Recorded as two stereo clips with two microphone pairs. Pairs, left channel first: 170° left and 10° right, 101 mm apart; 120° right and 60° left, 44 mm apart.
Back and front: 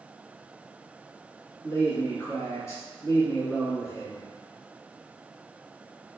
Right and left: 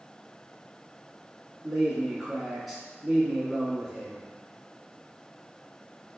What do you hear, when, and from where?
1.6 s a man speaking: 150° left, 1.5 m